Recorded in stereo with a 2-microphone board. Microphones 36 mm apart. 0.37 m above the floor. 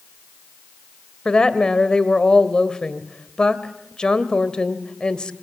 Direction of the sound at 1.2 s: 25° left (ahead or behind).